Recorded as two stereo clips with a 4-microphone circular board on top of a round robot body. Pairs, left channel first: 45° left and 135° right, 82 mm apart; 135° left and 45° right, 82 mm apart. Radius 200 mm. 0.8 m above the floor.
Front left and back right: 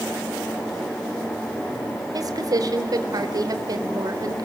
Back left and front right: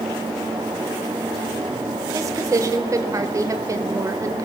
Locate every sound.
2.1 s a woman speaking: 95° right, 3.5 m